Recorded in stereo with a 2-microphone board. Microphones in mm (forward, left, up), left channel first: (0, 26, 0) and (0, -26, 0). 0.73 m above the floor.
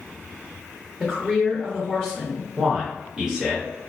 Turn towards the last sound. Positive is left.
turn(degrees=-15)  # may be behind; listen again after turning